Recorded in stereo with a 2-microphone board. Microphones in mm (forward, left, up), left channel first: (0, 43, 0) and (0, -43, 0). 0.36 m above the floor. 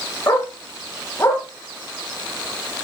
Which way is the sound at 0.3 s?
25° left (ahead or behind).